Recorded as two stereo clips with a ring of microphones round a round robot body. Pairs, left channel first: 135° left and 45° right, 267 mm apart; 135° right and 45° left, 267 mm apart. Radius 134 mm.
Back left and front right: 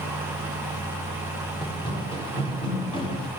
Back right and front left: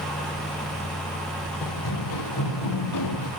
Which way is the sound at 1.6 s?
150° right.